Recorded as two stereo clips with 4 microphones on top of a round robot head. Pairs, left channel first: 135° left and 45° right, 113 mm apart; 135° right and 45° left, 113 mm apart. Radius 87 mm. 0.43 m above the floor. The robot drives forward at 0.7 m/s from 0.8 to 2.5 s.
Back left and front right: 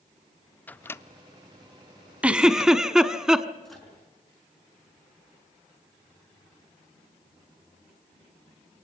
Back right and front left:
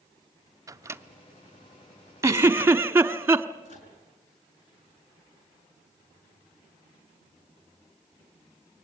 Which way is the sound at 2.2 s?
20° left.